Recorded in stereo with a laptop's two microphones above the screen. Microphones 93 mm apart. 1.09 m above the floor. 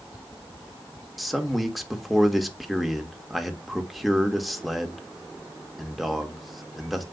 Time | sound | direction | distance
1.2 | a man speaking | centre (ahead or behind) | 2.0 m